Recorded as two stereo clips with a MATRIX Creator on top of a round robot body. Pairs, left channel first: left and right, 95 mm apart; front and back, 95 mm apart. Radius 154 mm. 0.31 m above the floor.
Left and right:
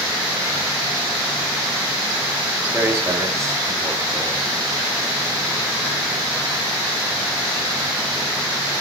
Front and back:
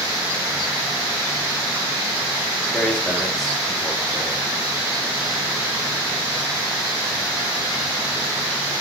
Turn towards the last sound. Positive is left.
turn(degrees=-105)